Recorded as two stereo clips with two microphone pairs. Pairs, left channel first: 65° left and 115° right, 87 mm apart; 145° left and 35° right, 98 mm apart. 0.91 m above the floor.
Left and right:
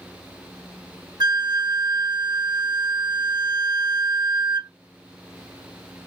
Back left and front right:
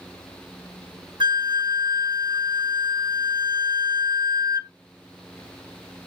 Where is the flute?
75° right, 1.0 m.